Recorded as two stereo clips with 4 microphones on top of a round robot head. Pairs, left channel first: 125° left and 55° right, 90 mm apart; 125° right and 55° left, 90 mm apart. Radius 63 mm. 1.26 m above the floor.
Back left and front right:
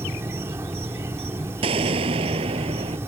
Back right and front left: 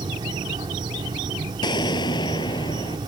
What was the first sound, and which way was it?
An insect, 10° left.